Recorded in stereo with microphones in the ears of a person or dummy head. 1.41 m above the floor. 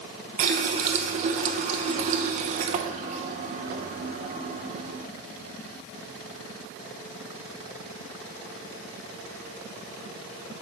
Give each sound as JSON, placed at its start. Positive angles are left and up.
{"t": 0.4, "sound": "a running tap", "side_deg": -40, "distance_m": 0.7}